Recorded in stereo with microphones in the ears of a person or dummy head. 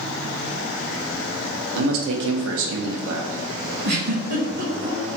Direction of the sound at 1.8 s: 75° right (ahead or behind).